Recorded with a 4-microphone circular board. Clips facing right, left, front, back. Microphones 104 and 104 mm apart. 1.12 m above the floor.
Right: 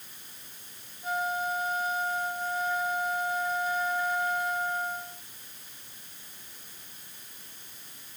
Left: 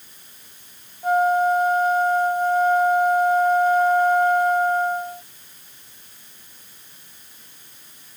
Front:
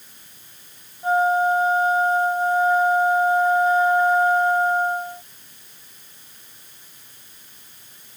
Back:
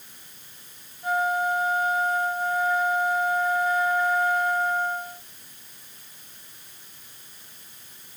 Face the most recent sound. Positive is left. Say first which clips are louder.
# left 13 dB, front 6 dB
turn(degrees=60)